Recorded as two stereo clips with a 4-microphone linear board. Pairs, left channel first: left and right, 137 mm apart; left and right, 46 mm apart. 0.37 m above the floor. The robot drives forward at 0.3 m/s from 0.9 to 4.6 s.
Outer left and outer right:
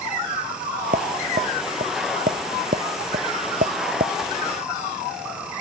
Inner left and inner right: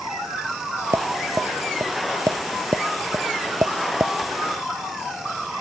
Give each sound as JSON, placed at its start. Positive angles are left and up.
{"t": 0.9, "sound": "tapping", "side_deg": -70}